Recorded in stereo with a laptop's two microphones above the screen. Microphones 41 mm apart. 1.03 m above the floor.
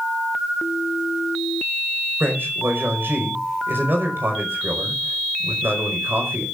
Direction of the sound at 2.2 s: 65° right (ahead or behind).